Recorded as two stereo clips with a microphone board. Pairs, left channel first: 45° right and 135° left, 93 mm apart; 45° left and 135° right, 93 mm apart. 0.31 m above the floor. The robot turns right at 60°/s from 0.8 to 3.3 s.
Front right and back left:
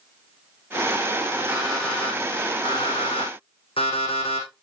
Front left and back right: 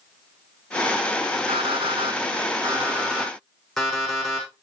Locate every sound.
1.5 s an alarm clock: 155° right, 7 m; by 4.6 s 45° right, 7 m